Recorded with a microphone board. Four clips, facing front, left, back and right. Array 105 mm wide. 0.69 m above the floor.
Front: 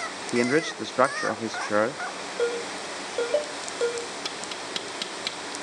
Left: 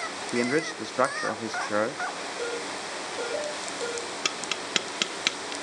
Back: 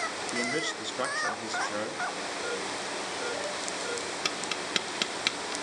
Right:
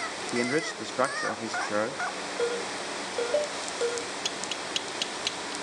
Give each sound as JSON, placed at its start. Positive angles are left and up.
{"t": 0.3, "sound": "a man speaking", "azimuth_deg": 15, "distance_m": 0.8}
{"t": 2.4, "sound": "a ringtone", "azimuth_deg": -20, "distance_m": 8.5}
{"t": 4.2, "sound": "tapping", "azimuth_deg": 115, "distance_m": 1.3}